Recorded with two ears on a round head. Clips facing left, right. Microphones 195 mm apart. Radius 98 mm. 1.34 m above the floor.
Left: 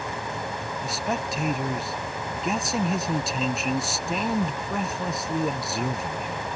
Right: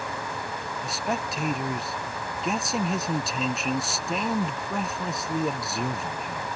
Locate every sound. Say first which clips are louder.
0.8 s a man speaking: left 1 dB; centre (ahead or behind)